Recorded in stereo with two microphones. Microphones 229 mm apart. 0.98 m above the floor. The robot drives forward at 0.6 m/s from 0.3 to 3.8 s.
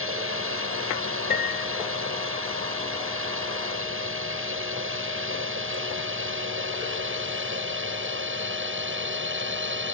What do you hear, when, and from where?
0.0 s a drone: 65° right (ahead or behind); by 9.9 s 55° right (ahead or behind)
1.3 s a piano: 45° left (ahead or behind); by 1.9 s 40° left (ahead or behind)